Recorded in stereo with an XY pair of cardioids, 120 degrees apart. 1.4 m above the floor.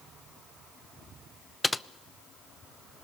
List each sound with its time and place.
1.6 s typing on a keyboard: 10° left, 0.7 m